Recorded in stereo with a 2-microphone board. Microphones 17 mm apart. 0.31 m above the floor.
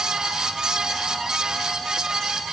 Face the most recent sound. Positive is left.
No sound to turn to.